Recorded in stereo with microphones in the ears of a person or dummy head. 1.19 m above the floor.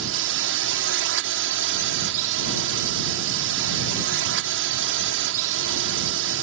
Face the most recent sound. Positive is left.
turn(degrees=-65)  # may be behind; listen again after turning